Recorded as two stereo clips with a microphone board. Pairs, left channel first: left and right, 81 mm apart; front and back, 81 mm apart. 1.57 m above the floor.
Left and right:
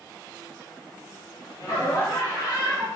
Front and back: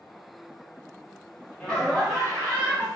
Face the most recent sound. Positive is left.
turn(degrees=105)